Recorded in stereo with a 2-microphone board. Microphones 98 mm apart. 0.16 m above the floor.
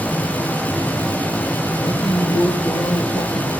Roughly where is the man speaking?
Left.